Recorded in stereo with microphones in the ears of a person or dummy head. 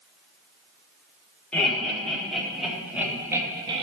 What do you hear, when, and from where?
1.5 s laughter: 5° left (ahead or behind), 5 m; by 3.8 s 30° right (ahead or behind), 2 m